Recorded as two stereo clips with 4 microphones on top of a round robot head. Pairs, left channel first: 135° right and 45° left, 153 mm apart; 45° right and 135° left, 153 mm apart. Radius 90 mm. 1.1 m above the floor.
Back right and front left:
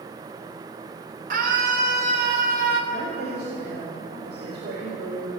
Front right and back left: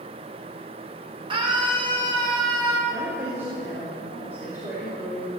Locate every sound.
1.3 s a scream: 80° left, 3.5 m; by 2.8 s 75° left, 3 m
2.9 s a woman speaking: 60° left, 4.5 m